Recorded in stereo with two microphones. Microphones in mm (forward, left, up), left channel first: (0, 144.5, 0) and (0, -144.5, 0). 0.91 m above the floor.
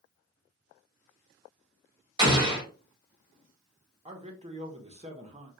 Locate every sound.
2.2 s an explosion: 15° right (ahead or behind), 1.5 m
4.0 s a man speaking: 25° right (ahead or behind), 0.8 m